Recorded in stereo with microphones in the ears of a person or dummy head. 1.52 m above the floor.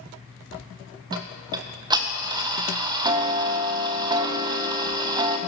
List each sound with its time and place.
1.1 s ticking: 30° right (ahead or behind), 0.5 m